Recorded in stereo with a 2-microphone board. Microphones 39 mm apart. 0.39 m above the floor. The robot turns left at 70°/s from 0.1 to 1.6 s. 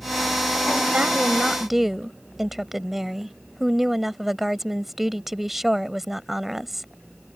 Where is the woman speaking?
125° right; by 6.9 s 170° right.